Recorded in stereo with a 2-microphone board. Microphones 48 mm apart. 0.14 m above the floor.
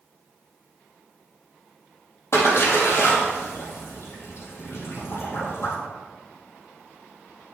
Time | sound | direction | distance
2.3 | a splash | 60° left (ahead or behind) | 3.5 m